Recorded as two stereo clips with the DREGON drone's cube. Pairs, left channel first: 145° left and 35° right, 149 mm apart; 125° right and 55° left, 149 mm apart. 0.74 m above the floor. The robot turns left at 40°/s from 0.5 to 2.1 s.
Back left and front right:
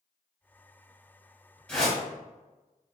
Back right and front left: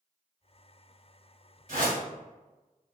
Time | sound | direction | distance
1.7 | a whoosh | 60° left | 1.4 m